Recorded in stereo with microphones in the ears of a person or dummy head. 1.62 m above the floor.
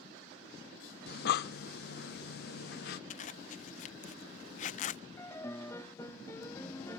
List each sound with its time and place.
1.1 s breathing: 55° left (ahead or behind)
3.1 s a zipper: 40° left (ahead or behind)
5.2 s a piano: 10° left (ahead or behind)